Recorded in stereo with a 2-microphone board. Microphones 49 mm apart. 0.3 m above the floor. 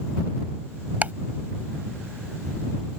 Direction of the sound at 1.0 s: 35° right (ahead or behind).